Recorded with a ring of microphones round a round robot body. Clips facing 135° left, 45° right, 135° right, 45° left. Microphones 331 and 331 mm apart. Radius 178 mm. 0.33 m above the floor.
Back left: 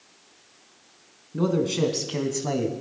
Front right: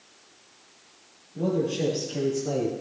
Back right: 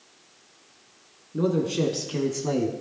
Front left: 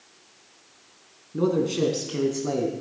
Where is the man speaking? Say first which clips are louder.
Back left 3 dB, front left 1 dB; 130° left, 3.5 m; by 2.7 s 150° left, 2.5 m.